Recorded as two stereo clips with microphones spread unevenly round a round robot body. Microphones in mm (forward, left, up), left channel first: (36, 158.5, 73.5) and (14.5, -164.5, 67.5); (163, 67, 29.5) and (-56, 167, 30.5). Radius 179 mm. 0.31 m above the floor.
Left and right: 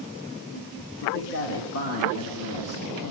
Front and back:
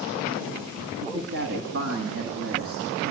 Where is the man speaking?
145° left, 2.5 m; by 3.1 s 130° left, 5 m.